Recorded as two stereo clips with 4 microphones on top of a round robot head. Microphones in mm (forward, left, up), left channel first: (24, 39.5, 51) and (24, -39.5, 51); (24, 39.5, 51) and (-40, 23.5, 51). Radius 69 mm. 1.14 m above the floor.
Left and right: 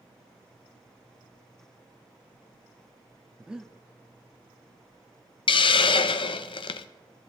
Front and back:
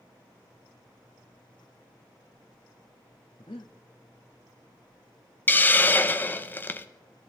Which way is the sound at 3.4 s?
10° right.